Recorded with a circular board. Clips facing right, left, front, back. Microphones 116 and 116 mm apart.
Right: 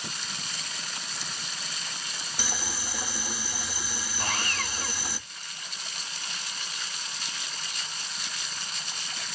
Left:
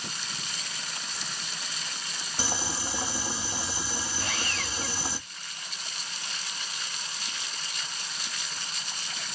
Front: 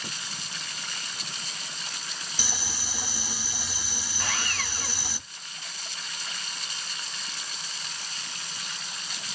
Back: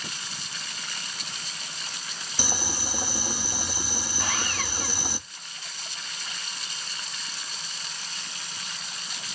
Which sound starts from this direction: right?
Sawing, at 4.2 s.